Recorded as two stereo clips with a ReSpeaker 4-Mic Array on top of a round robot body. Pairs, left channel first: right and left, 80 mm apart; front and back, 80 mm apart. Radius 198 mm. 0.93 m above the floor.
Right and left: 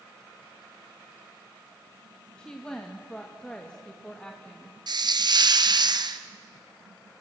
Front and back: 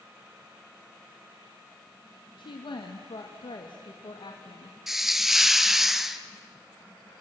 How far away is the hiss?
About 1.5 m.